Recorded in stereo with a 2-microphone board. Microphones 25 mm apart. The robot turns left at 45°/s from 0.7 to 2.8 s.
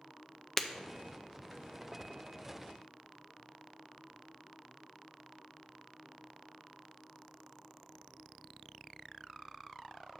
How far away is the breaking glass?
About 0.5 m.